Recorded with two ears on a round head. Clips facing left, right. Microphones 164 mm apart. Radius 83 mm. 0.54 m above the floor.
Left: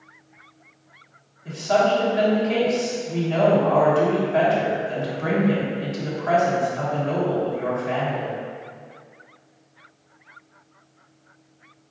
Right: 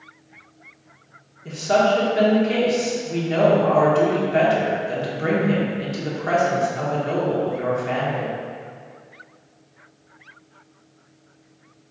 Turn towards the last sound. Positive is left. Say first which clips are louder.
# right 1 dB
turn(degrees=-35)  # may be behind; listen again after turning